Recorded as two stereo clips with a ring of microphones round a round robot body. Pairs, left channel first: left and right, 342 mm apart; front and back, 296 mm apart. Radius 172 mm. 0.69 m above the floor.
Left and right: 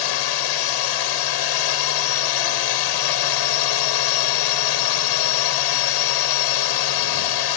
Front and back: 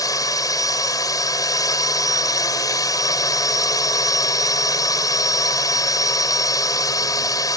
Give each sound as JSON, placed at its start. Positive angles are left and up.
{"t": 0.0, "sound": "a drone", "azimuth_deg": 80}